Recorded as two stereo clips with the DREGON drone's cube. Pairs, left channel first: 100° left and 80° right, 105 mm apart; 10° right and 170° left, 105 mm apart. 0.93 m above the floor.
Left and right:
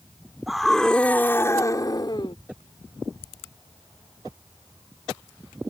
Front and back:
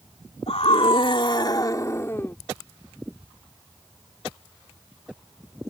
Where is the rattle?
No rattle in this recording.